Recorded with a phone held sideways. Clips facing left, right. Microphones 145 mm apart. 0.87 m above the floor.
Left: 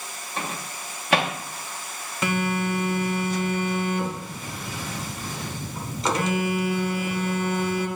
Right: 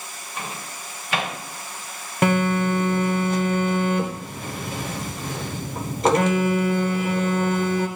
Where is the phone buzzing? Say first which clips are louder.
Right 5 dB; 55° right (ahead or behind), 0.9 m.